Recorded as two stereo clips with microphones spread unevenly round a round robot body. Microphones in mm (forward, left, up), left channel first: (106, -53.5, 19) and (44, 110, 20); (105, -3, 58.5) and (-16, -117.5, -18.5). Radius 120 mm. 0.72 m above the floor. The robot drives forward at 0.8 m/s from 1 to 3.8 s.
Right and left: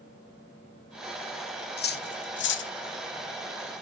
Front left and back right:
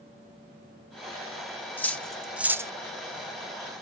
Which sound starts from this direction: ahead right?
Cutlery clinking, at 1.8 s.